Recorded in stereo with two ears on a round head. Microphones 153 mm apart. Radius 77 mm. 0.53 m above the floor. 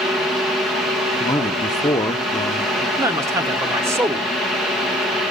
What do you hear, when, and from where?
1.2 s a man speaking: 20° left (ahead or behind), 0.7 m
3.0 s a man speaking: 15° right (ahead or behind), 1.0 m